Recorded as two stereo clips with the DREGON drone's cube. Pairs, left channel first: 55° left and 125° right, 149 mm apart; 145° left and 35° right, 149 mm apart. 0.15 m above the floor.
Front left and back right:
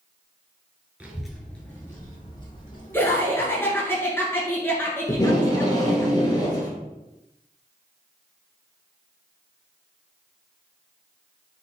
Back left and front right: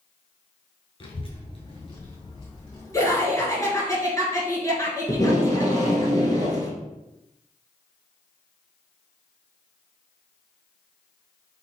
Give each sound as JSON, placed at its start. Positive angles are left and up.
{"t": 1.0, "sound": "a child speaking", "azimuth_deg": 165, "distance_m": 0.8}
{"t": 2.9, "sound": "laughter", "azimuth_deg": 110, "distance_m": 1.5}
{"t": 5.1, "sound": "tape being pulled", "azimuth_deg": 100, "distance_m": 1.2}